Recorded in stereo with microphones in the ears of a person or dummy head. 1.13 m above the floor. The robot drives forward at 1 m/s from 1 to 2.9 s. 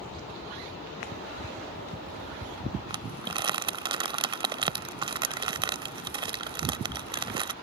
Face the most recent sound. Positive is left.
turn(degrees=-20)  # may be behind; listen again after turning